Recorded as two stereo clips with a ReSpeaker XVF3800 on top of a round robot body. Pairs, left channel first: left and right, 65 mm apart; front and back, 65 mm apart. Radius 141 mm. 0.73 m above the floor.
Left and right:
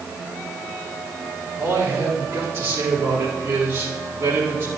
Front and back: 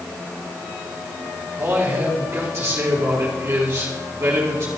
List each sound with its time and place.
1.6 s a man speaking: 125° right, 4 m